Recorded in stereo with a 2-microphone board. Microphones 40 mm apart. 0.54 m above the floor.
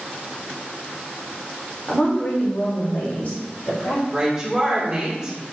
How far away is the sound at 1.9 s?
About 1.2 m.